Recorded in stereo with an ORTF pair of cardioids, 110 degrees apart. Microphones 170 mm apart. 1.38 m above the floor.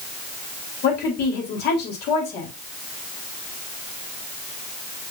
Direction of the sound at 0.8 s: 70° left.